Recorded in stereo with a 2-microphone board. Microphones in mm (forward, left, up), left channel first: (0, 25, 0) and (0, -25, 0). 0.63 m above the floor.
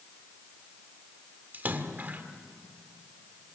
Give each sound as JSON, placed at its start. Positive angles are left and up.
{"t": 1.5, "sound": "a splash", "side_deg": -40, "distance_m": 1.9}